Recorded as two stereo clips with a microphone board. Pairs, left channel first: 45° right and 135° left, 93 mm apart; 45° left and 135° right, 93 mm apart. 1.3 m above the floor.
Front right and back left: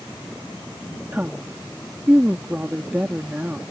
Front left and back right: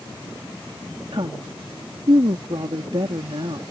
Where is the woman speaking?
155° right.